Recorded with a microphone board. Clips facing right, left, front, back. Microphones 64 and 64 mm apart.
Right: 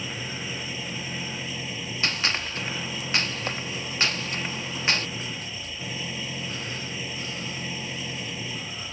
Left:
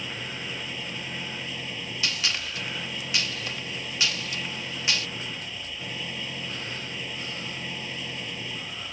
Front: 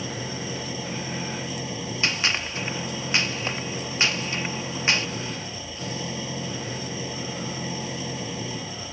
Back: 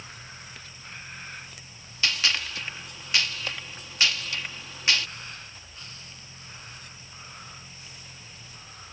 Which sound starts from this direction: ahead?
An engine running, at 0.0 s.